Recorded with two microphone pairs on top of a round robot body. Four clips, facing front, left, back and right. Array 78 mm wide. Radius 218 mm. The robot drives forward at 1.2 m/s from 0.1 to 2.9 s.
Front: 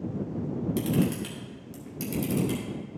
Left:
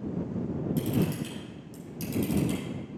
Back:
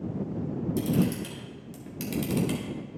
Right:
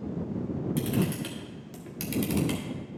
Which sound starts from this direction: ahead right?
A camera shutter, at 0.8 s.